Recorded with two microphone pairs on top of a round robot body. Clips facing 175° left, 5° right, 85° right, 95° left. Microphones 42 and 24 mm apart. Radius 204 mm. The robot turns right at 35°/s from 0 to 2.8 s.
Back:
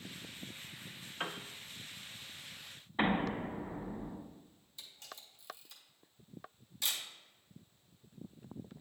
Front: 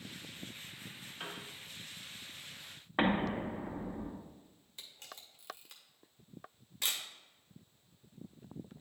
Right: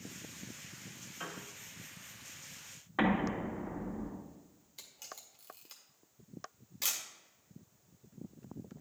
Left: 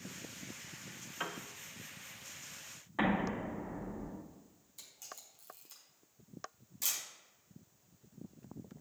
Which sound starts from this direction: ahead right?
A camera shutter, at 4.8 s.